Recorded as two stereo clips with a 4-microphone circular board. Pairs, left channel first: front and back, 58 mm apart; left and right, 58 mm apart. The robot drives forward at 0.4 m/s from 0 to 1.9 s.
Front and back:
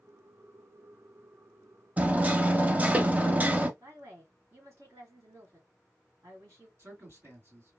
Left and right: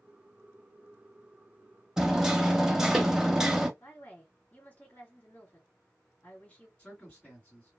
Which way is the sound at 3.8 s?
155° left.